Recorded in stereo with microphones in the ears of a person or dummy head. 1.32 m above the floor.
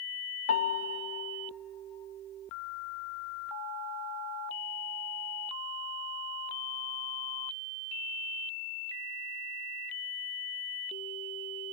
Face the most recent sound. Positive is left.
turn(degrees=50)  # may be behind; listen again after turning